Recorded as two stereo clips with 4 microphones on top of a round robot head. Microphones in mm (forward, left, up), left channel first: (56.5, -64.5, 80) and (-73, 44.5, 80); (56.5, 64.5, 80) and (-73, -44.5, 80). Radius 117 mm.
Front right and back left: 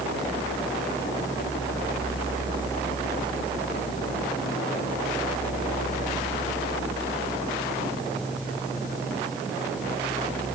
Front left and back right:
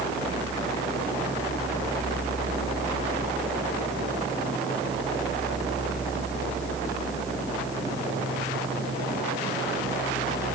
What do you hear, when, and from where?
Only background noise.